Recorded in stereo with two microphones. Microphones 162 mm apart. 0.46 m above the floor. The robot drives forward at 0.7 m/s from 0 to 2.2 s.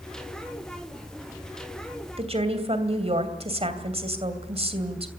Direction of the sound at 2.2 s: 40° right (ahead or behind).